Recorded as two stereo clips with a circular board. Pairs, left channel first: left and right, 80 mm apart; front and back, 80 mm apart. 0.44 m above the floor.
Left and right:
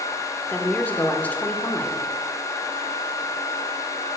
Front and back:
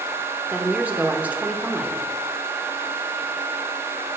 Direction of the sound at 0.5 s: 135° left.